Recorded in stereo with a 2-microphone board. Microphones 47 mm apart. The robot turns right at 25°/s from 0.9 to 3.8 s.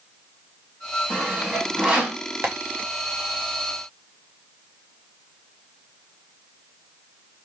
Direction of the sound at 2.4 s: 55° right (ahead or behind).